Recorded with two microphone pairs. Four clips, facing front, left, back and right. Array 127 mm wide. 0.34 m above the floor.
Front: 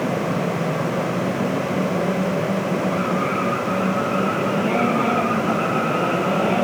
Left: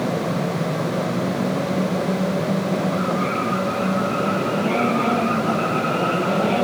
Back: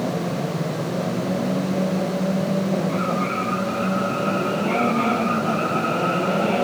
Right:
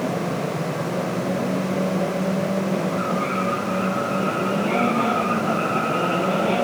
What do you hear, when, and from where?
Only background noise.